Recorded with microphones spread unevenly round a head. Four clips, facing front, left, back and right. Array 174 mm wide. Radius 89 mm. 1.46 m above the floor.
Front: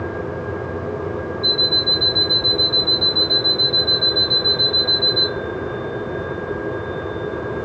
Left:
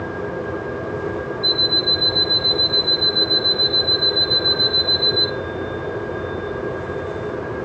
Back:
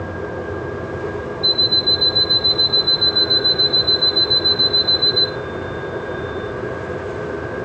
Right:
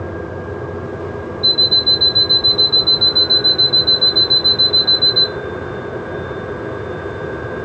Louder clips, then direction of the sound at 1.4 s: Even, even; 130° right.